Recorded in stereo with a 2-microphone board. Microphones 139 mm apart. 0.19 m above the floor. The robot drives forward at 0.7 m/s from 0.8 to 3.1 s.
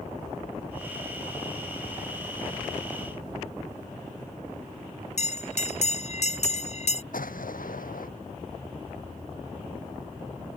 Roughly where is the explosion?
Left.